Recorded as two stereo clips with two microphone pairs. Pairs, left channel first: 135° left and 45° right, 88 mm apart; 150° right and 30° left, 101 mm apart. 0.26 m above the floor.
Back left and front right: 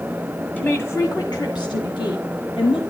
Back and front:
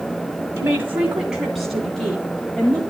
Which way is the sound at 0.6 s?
80° left.